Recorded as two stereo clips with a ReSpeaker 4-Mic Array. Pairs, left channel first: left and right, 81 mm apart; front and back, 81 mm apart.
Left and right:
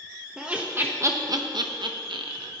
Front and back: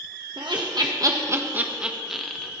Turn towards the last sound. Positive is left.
turn(degrees=-85)